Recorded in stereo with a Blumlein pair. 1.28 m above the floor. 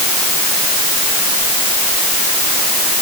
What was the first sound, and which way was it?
Only background noise.